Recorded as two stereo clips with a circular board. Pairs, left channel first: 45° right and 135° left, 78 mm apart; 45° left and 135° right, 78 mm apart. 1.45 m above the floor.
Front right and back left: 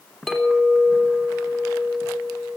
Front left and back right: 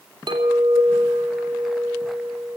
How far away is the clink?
About 3 m.